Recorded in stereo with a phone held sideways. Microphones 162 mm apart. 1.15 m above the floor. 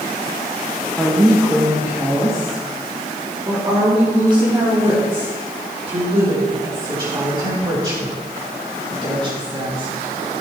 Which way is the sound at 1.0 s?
Centre (ahead or behind).